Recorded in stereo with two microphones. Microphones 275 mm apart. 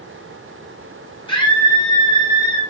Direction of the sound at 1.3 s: 15° left (ahead or behind).